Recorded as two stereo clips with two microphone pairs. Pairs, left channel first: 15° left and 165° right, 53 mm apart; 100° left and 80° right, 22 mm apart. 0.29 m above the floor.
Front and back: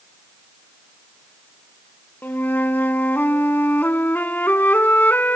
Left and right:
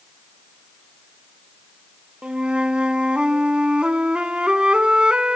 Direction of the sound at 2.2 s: 35° right.